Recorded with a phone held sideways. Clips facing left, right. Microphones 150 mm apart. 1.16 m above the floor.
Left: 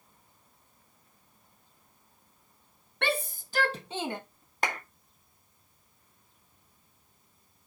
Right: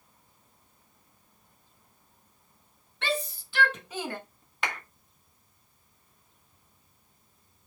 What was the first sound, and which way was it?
A shout, 60° left (ahead or behind).